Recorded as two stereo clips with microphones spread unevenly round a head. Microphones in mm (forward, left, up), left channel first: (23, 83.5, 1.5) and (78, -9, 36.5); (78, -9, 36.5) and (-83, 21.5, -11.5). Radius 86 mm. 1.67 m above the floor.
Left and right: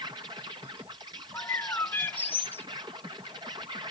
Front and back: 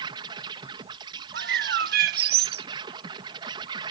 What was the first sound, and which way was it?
An insect, 125° right.